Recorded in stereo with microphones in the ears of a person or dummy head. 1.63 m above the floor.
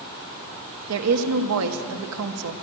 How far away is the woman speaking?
About 1.3 m.